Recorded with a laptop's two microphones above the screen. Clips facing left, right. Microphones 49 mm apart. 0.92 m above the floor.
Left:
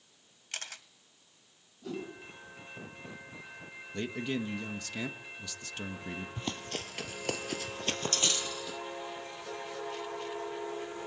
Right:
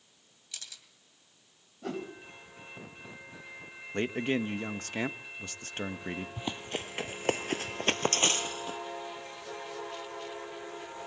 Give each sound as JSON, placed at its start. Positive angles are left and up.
{"t": 0.5, "sound": "a camera shutter", "side_deg": 55, "distance_m": 1.2}
{"t": 1.8, "sound": "a whoosh", "side_deg": -60, "distance_m": 4.0}
{"t": 3.9, "sound": "a man speaking", "side_deg": -40, "distance_m": 1.2}
{"t": 6.4, "sound": "running footsteps", "side_deg": -10, "distance_m": 1.5}